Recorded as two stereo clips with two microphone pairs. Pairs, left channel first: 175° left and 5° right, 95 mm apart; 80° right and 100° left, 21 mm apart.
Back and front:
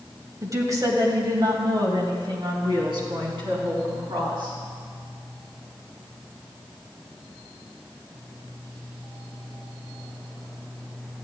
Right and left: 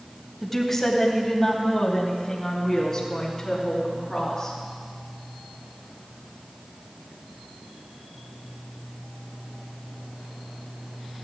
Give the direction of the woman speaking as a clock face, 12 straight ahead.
12 o'clock.